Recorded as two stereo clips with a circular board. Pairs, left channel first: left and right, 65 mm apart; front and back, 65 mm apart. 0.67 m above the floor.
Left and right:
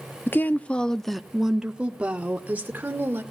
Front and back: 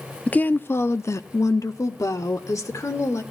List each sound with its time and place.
0.3 s a woman speaking: 55° left, 0.8 m; by 3.2 s 30° right, 2.0 m